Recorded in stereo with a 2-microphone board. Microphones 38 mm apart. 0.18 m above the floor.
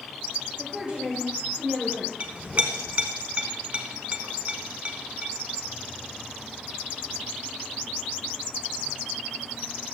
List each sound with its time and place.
0.6 s a woman speaking: 25° right (ahead or behind), 4 m
2.2 s a clink: 35° right (ahead or behind), 0.9 m